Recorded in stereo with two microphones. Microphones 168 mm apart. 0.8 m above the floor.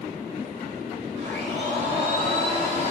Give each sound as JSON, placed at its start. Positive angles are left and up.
{"t": 1.2, "sound": "a blender", "side_deg": -40, "distance_m": 3.0}